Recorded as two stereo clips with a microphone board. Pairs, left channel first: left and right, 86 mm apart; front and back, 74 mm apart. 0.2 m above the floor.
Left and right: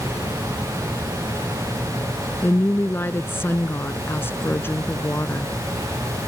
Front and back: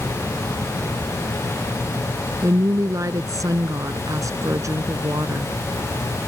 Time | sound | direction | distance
2.4 | a woman speaking | 150° left | ?